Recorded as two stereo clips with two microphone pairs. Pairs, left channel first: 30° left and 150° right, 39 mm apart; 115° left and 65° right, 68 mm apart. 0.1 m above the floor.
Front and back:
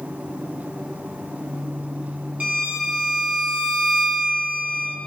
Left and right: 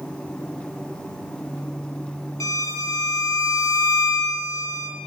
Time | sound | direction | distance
2.4 | a violin | 155° left | 3 m